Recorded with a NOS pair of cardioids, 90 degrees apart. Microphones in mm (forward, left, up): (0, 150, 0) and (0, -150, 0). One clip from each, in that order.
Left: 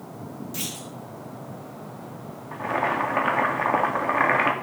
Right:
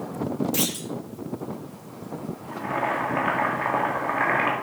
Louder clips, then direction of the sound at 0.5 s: Right 6 dB; 45° right.